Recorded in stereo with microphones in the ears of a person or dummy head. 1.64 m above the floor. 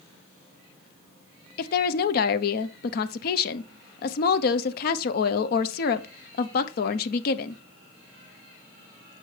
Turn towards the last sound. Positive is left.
turn(degrees=60)  # may be behind; listen again after turning